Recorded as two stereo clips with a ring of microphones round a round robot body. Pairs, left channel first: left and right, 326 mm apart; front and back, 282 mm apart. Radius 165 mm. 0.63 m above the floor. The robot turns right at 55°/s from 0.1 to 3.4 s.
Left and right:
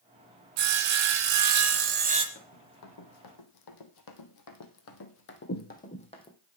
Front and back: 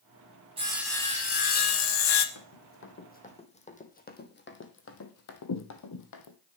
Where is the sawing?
105° right, 1.1 m; by 2.2 s 15° right, 1.1 m.